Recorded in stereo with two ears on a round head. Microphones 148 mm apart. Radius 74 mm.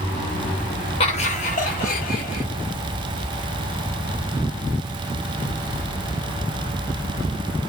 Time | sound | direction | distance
1.0 | laughter | 40° left (ahead or behind) | 0.8 m